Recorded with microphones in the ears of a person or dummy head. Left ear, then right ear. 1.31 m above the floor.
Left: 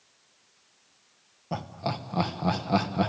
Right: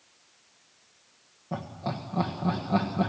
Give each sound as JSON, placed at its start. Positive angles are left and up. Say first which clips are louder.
{"t": 1.5, "sound": "laughter", "louder": "left 2 dB", "side_deg": 65, "distance_m": 1.5}